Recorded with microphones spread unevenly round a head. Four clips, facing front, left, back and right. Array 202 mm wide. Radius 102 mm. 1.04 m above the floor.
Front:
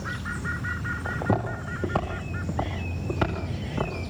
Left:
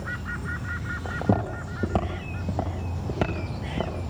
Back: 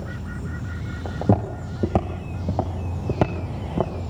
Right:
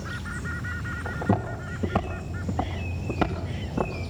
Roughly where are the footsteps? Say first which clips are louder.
Left 1 dB, back 5 dB; behind left.